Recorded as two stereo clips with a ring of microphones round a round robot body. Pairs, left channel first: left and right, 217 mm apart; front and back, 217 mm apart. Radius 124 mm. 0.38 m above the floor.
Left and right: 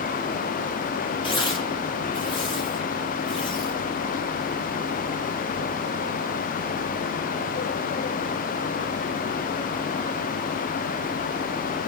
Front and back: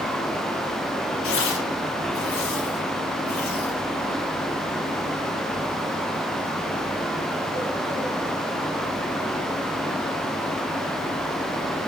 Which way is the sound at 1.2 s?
20° left.